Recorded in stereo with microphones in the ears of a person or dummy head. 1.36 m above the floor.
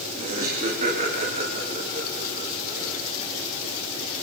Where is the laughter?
40° right (ahead or behind), 1.9 m; by 2.9 s 45° right (ahead or behind), 4.5 m.